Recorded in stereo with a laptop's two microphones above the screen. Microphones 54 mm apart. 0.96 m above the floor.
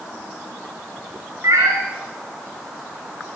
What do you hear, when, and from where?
1.4 s a cat meowing: 80° right, 4 m